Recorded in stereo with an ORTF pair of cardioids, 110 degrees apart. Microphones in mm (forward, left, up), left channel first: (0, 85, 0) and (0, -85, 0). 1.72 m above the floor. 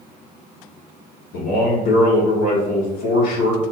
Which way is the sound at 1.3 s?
70° left.